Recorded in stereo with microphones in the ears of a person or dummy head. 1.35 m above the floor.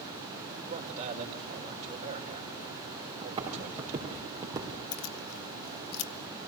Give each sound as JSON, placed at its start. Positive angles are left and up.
{"t": 0.6, "sound": "a man speaking", "side_deg": -40, "distance_m": 4.5}
{"t": 3.2, "sound": "footsteps", "side_deg": -20, "distance_m": 6.0}
{"t": 4.9, "sound": "keys jangling", "side_deg": 60, "distance_m": 0.6}